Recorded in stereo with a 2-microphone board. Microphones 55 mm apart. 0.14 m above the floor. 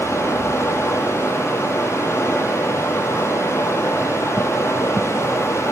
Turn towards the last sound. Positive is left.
turn(degrees=55)  # may be behind; listen again after turning